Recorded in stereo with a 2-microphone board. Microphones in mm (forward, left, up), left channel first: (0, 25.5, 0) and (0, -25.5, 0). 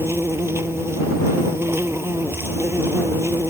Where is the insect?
55° right (ahead or behind).